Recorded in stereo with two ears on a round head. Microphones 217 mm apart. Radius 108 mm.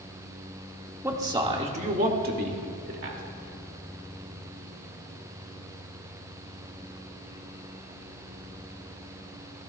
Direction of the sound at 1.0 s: 10° right (ahead or behind).